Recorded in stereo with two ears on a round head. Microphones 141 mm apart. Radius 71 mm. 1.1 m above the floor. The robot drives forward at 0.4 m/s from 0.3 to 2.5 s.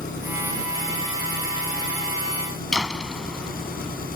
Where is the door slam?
5° left (ahead or behind).